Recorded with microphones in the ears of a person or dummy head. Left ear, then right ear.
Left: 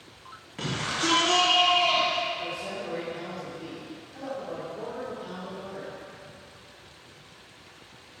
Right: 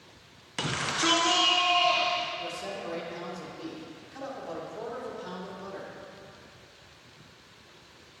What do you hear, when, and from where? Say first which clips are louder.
0.6 s a shout: right 1 dB; 30° right (ahead or behind), 0.7 m; by 2.2 s 10° right (ahead or behind), 1.6 m
2.4 s a man speaking: left 2 dB; 85° right, 2.5 m